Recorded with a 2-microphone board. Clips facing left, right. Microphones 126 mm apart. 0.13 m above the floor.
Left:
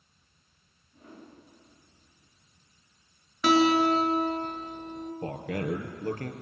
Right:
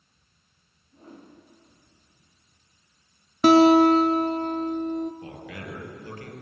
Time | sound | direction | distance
0.9 | a whoosh | 35° right (ahead or behind) | 10 m
3.4 | a guitar | 40° right (ahead or behind) | 1.9 m
5.2 | a man speaking | 45° left (ahead or behind) | 3.5 m